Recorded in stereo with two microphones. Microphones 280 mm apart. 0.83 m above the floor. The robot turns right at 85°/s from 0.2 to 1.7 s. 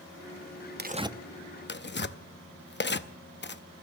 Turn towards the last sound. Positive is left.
turn(degrees=40)  # may be behind; listen again after turning